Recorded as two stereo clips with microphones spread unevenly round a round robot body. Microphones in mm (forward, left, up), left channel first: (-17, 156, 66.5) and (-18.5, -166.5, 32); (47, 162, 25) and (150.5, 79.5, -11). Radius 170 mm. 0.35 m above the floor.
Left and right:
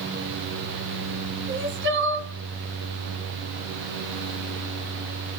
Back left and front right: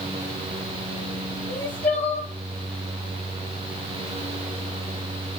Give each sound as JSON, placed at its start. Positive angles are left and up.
{"t": 1.5, "sound": "crying", "azimuth_deg": -145, "distance_m": 2.0}